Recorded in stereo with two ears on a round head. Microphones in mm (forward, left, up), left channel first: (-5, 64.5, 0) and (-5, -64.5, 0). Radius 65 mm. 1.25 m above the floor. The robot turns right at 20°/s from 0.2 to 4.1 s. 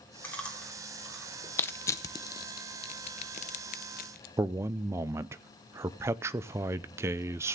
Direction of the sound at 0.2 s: 15° left (ahead or behind).